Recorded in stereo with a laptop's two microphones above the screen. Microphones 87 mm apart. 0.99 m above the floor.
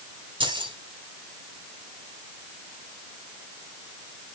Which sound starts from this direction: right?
Keys jangling, at 0.4 s.